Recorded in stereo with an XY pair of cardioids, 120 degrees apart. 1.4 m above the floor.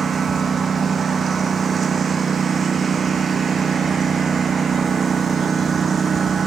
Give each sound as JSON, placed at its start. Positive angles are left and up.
{"t": 0.0, "sound": "a lawn mower", "azimuth_deg": -35}